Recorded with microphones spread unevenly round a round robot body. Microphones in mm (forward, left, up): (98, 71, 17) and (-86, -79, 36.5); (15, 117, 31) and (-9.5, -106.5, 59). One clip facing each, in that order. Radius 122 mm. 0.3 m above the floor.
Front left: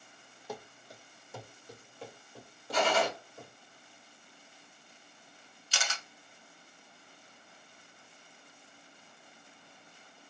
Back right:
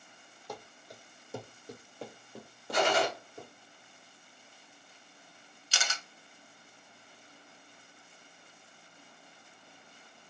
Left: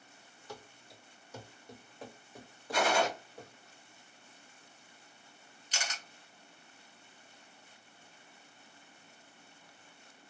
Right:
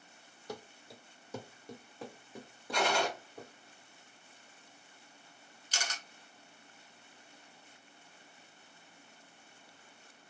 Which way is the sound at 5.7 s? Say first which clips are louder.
Even, even; 150° right.